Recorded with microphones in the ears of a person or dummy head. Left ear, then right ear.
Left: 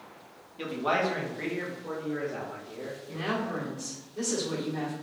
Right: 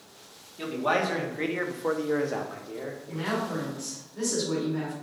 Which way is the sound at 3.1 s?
15° left (ahead or behind).